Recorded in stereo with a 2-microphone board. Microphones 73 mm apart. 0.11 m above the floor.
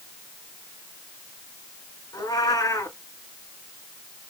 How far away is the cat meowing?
About 4 m.